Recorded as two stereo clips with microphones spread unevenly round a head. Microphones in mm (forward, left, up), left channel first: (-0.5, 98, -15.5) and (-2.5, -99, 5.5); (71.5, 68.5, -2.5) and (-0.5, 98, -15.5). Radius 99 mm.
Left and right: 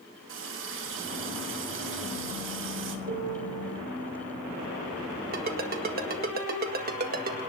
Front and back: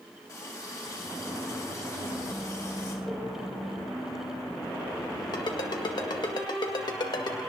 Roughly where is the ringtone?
Ahead right.